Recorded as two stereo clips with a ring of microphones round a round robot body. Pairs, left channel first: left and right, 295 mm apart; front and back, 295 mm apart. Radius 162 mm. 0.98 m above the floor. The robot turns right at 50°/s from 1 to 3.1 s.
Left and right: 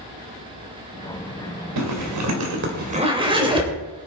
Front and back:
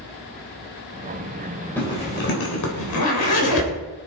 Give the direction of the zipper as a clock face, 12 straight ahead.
3 o'clock.